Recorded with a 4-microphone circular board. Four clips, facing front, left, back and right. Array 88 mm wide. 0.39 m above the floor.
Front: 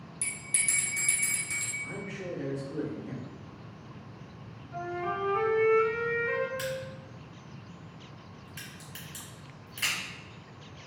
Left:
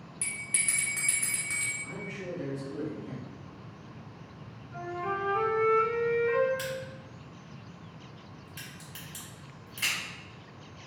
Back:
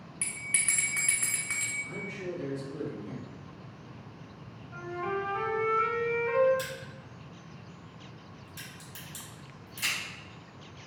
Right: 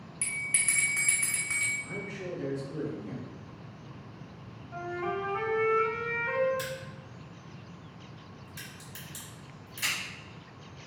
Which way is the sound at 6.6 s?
45° left.